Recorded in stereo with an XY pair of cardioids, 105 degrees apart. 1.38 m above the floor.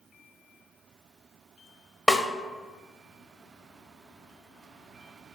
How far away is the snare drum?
About 0.6 m.